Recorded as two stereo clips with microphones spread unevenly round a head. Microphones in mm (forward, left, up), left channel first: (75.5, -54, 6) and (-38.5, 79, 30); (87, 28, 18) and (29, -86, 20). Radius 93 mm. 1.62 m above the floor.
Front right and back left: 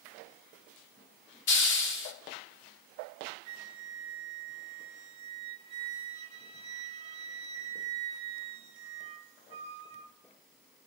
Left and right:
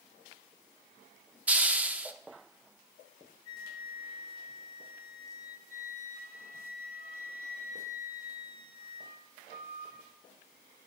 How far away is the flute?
About 1.0 m.